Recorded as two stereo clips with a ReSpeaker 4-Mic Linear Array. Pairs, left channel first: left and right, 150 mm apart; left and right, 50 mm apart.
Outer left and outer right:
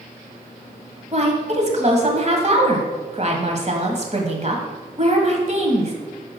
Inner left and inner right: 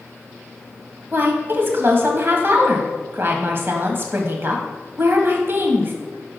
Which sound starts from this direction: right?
A woman speaking, at 1.1 s.